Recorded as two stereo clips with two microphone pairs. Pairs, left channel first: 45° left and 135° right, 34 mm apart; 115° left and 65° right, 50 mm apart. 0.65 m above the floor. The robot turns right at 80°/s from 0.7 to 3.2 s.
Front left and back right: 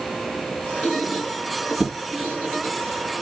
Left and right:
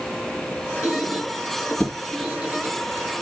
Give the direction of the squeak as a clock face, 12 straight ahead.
9 o'clock.